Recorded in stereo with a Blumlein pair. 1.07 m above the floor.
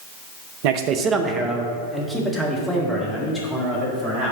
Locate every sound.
0.6 s a man speaking: 50° right, 0.7 m; by 4.3 s 15° left, 3.5 m